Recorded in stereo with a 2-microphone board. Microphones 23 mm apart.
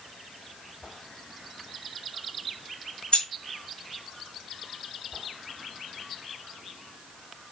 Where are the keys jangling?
55° left (ahead or behind), 1.4 m.